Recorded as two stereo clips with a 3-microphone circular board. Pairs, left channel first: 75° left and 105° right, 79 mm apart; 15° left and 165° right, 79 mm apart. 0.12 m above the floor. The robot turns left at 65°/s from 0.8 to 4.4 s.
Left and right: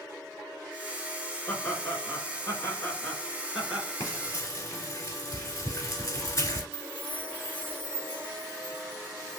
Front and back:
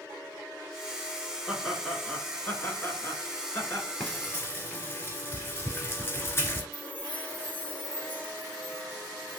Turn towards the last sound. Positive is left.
turn(degrees=-50)